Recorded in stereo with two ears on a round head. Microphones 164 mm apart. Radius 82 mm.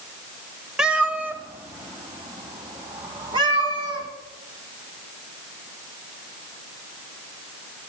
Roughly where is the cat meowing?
Centre.